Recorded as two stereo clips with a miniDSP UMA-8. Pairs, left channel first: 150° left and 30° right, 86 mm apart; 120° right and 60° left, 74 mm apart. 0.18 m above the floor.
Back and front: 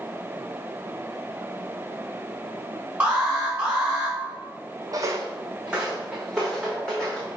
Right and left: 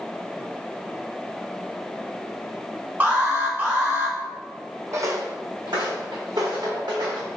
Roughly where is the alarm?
Ahead left.